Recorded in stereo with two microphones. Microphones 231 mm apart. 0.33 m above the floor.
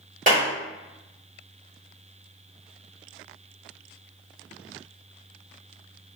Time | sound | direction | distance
0.3 | a clap | 35° right (ahead or behind) | 1.2 m